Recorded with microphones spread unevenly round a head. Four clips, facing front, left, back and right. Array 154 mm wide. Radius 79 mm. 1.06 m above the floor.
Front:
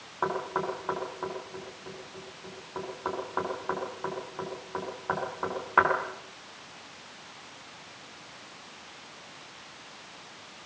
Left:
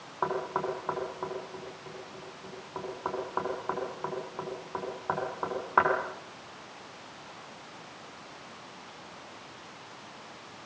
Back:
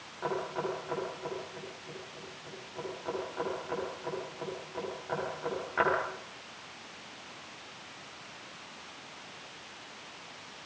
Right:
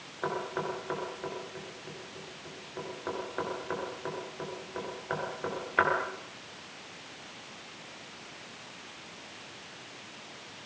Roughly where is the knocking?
Ahead left.